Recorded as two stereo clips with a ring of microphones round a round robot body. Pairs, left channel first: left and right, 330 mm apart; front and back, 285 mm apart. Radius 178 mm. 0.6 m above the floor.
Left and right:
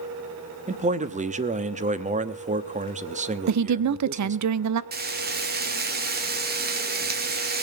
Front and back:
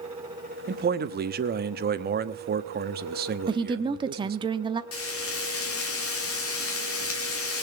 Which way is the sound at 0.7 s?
145° right.